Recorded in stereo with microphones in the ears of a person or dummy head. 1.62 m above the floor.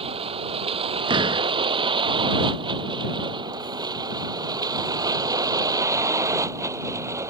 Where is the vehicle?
30° right (ahead or behind); by 7.3 s 15° right (ahead or behind).